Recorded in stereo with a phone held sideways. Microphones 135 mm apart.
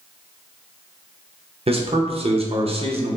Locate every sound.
1.7 s a man speaking: 45° right (ahead or behind), 0.6 m